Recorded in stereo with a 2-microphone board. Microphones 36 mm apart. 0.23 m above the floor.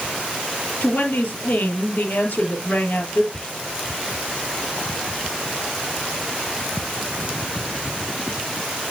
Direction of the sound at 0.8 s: 65° left (ahead or behind).